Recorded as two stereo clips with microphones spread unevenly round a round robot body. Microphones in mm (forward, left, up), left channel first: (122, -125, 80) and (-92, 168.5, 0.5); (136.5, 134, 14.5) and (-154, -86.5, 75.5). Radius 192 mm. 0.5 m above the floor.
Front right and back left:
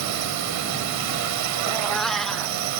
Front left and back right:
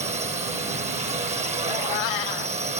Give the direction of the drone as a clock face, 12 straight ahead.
7 o'clock.